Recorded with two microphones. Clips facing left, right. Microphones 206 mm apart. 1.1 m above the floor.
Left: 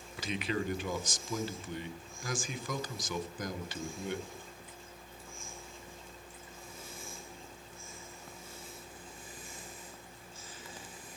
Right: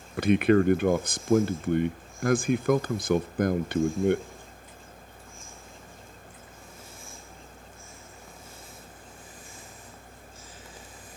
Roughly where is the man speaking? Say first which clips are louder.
Right 15 dB; right.